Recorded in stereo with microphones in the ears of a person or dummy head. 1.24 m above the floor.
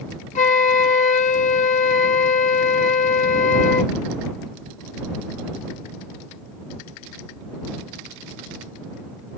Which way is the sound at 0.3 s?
45° left (ahead or behind).